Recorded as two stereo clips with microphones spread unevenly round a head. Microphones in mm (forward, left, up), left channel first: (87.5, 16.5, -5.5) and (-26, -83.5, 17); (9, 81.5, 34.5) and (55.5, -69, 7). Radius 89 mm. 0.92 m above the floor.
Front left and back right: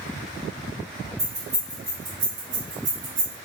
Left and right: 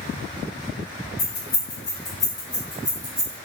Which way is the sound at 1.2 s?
160° left.